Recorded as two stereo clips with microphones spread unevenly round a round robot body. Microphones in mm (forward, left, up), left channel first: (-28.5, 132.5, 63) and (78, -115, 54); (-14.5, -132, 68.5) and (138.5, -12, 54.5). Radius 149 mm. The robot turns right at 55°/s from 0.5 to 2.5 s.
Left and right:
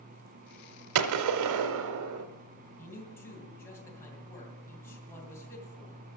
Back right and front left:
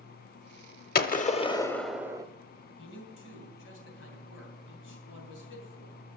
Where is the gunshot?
105° right, 0.9 m; by 2.2 s 30° right, 0.9 m.